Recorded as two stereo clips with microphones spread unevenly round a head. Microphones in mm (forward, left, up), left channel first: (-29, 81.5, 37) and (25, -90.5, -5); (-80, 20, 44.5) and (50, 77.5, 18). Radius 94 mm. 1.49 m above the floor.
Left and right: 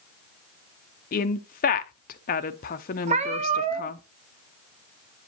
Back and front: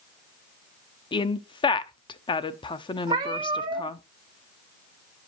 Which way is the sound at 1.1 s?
150° left.